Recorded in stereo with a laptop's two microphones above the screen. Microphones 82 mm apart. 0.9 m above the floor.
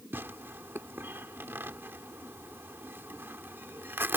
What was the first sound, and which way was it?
Tearing paper, 30° right (ahead or behind).